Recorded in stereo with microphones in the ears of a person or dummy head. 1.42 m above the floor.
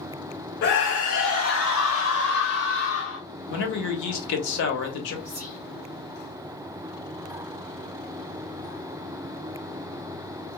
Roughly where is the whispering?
Left.